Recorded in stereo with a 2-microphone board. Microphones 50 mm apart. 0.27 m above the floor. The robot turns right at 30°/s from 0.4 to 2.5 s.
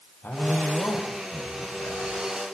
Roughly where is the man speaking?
Ahead left.